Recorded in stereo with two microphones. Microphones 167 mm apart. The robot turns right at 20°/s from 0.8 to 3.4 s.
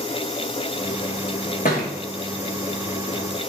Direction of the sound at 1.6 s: 55° left (ahead or behind).